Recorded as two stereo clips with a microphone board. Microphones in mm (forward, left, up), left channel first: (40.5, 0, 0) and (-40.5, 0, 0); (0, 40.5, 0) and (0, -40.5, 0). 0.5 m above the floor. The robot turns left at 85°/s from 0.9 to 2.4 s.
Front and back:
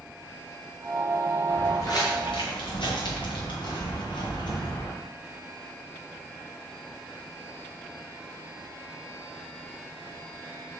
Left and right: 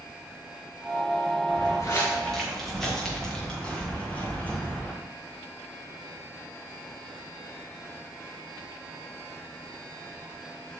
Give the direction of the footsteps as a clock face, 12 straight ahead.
10 o'clock.